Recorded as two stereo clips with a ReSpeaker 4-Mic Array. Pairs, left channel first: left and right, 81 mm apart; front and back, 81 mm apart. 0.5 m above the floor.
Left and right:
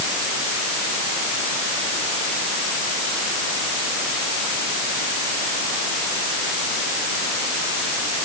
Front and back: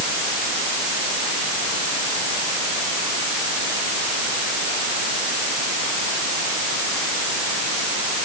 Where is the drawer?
I don't hear a drawer.